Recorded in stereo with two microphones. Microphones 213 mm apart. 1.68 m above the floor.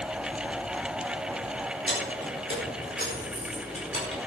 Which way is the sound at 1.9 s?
60° left (ahead or behind).